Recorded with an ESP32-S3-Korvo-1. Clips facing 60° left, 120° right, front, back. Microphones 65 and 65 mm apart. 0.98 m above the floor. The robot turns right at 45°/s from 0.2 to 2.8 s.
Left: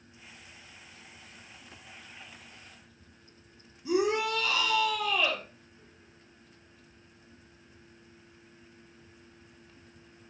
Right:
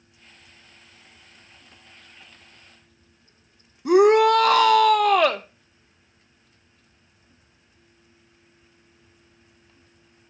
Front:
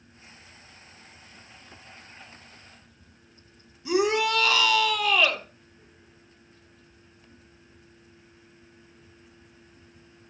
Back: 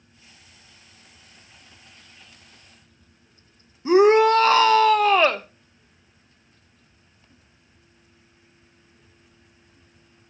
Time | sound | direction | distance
3.9 | a shout | 130° right | 0.6 m